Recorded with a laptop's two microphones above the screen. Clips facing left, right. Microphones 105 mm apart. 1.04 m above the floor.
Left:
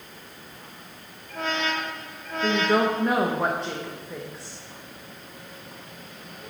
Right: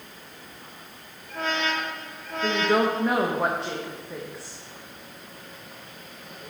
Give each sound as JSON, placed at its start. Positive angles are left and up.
{"t": 2.4, "sound": "a woman speaking", "side_deg": 0, "distance_m": 0.5}